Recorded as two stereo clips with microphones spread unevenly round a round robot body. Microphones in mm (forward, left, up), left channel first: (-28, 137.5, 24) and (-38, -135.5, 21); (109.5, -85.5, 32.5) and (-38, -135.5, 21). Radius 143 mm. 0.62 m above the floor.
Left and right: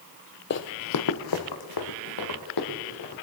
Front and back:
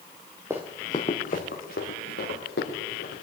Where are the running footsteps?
120° left, 0.8 m; by 3.2 s 60° left, 3.5 m.